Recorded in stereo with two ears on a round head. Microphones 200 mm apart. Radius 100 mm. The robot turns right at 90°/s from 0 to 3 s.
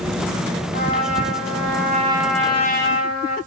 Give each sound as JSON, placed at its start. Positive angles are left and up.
{"t": 0.7, "sound": "a trumpet", "azimuth_deg": -140, "distance_m": 5.5}